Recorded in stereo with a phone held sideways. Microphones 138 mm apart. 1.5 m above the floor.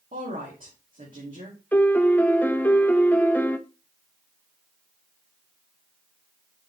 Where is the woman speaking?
75° right (ahead or behind), 3 m.